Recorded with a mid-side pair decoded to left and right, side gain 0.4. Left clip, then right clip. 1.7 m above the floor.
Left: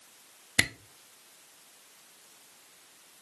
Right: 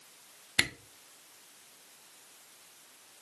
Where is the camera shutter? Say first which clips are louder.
Left 2 dB; 40° left, 0.6 m.